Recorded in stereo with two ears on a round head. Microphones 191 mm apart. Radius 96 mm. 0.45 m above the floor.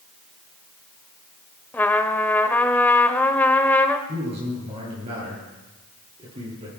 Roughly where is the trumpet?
Centre.